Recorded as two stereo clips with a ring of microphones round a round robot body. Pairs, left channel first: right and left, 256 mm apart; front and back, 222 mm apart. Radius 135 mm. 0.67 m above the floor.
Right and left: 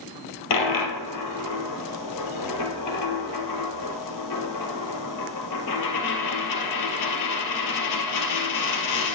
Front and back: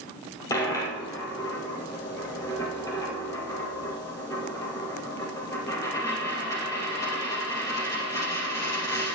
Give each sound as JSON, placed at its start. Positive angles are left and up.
{"t": 0.5, "sound": "a dropped coin", "azimuth_deg": -80, "distance_m": 2.0}